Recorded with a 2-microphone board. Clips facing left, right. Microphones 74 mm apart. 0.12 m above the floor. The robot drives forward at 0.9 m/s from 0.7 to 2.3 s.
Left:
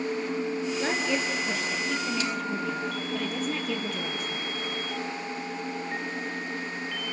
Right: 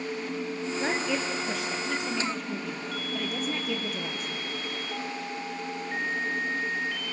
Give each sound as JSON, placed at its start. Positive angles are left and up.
{"t": 0.8, "sound": "a woman speaking", "side_deg": -5, "distance_m": 2.5}